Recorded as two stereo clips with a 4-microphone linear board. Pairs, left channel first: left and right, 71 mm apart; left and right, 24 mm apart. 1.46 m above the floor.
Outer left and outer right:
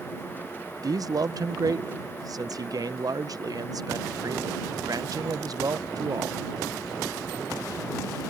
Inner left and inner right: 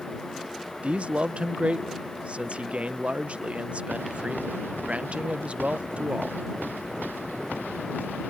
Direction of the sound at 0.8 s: 65° right (ahead or behind).